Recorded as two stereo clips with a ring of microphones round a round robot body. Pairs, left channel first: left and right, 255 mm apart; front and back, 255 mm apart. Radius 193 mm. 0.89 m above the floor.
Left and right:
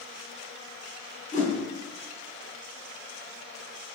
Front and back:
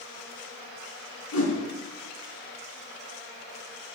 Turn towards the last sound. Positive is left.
turn(degrees=25)